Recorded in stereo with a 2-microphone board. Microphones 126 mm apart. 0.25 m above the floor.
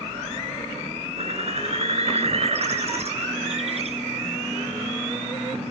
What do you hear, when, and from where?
1.2 s a bird: 55° right (ahead or behind), 3 m